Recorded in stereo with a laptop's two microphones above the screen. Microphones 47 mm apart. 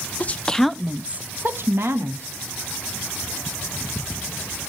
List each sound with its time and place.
0.2 s a woman speaking: 35° left (ahead or behind), 0.9 m; by 2.3 s 65° right (ahead or behind), 1.9 m